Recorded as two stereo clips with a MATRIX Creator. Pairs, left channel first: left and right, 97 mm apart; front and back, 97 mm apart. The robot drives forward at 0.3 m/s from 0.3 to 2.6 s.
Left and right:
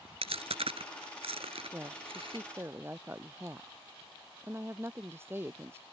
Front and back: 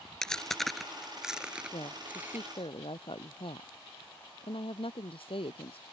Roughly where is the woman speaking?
Ahead right.